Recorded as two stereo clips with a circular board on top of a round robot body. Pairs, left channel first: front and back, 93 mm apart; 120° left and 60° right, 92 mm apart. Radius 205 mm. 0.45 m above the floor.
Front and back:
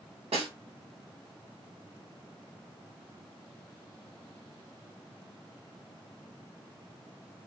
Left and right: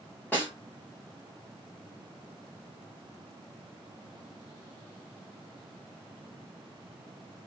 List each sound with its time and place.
0.3 s a snare drum: 165° right, 1.0 m